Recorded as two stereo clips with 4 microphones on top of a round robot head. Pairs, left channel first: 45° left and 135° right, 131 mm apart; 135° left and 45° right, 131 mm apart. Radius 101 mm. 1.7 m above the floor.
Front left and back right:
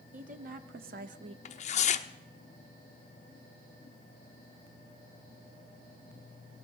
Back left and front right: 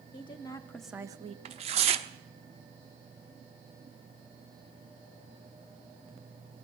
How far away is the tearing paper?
About 0.7 m.